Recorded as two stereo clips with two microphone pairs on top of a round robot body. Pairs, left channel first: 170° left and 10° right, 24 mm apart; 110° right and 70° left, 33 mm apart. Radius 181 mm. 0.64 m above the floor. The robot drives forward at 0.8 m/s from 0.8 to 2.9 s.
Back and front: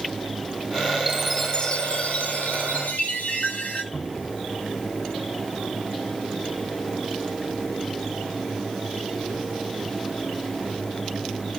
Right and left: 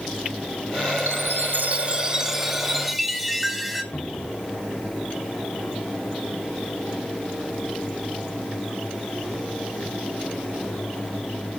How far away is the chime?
About 0.5 m.